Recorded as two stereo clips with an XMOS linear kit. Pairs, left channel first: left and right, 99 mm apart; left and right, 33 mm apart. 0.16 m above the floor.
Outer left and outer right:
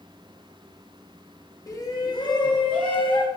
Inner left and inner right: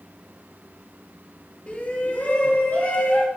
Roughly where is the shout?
Left.